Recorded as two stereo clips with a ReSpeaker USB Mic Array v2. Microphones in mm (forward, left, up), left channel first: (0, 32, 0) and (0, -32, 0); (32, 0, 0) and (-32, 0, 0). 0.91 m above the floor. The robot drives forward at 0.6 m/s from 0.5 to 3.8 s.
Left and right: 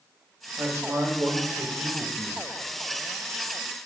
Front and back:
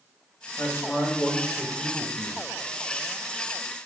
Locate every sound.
0.6 s a man speaking: 45° right, 1.1 m; by 2.4 s 115° right, 0.8 m